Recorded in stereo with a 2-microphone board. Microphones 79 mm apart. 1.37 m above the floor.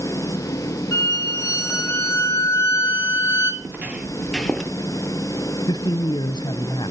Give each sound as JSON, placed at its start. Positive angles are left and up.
{"t": 0.9, "sound": "a violin", "side_deg": 35, "distance_m": 3.5}
{"t": 3.6, "sound": "footsteps", "side_deg": -25, "distance_m": 1.5}
{"t": 5.7, "sound": "a man speaking", "side_deg": 65, "distance_m": 0.7}